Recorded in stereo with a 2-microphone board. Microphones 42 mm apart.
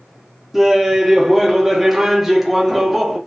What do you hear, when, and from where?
0.5 s laughter: 5° right (ahead or behind), 0.7 m